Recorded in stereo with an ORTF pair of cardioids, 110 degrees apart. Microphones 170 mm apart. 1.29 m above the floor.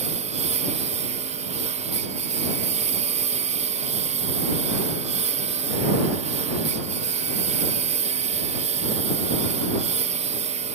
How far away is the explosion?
No explosion in this recording.